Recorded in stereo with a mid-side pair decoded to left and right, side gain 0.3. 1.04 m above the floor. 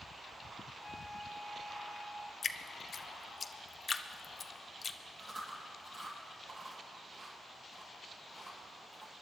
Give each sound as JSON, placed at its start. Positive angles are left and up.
{"t": 0.8, "sound": "a flute", "azimuth_deg": 30, "distance_m": 1.0}
{"t": 2.4, "sound": "dripping", "azimuth_deg": 55, "distance_m": 0.7}
{"t": 5.2, "sound": "chewing", "azimuth_deg": -60, "distance_m": 6.5}